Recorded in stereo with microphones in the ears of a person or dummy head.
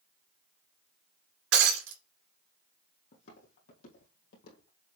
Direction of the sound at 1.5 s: 75° right (ahead or behind).